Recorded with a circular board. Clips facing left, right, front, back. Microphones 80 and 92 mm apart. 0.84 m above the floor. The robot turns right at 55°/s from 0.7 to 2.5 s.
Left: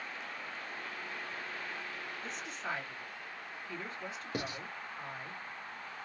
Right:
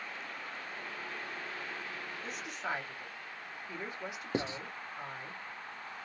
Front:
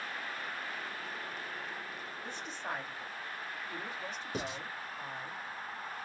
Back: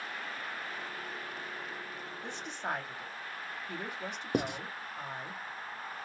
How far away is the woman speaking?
About 1.8 m.